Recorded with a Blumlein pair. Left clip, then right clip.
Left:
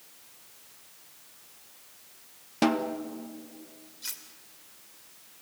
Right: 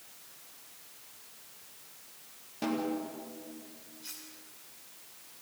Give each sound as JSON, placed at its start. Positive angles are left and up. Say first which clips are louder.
{"t": 2.6, "sound": "a snare drum", "louder": "left 6 dB", "azimuth_deg": 55, "distance_m": 1.4}
{"t": 4.0, "sound": "cutlery clinking", "louder": "left 7 dB", "azimuth_deg": 60, "distance_m": 2.5}